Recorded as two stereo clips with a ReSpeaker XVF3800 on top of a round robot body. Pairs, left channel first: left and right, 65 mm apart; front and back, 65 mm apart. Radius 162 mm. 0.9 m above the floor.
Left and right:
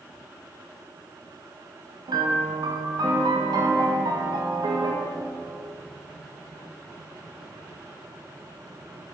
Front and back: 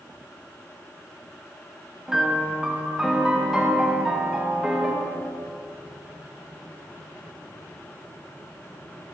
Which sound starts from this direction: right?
A piano, at 2.1 s.